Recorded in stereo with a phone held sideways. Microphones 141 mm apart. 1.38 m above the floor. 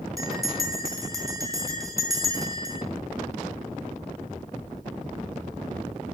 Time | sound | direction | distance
0.2 | a bell | 25° right (ahead or behind) | 2 m